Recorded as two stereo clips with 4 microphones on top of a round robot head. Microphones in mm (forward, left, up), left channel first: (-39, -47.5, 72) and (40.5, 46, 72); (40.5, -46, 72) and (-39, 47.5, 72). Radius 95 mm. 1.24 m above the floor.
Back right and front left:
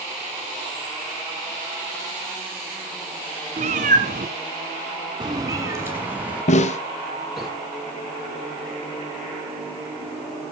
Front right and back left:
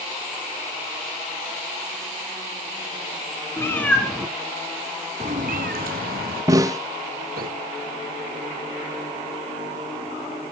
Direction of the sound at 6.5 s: 165° right.